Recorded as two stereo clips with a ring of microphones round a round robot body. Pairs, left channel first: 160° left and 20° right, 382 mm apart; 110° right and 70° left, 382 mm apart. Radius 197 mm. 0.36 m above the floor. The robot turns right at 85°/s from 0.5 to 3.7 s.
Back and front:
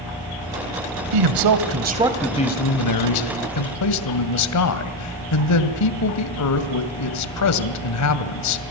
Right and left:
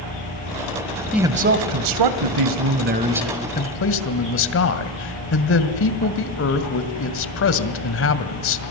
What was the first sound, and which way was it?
A man speaking, 25° right.